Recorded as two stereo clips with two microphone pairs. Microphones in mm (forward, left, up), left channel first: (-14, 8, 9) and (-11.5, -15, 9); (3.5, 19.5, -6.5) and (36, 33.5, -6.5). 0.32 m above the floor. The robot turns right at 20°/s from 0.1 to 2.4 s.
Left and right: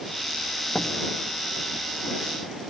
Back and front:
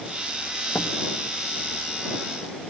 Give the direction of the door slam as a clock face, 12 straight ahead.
7 o'clock.